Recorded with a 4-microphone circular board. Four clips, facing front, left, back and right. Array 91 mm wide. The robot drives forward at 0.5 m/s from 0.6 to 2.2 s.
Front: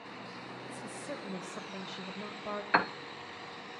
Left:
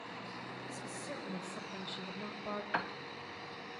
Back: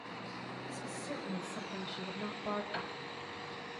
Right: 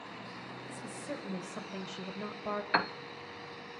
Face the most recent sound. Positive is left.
turn(degrees=-25)